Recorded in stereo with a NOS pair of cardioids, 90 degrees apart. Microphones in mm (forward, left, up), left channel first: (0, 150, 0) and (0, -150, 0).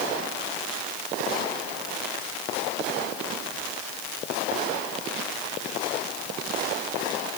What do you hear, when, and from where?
Only background noise.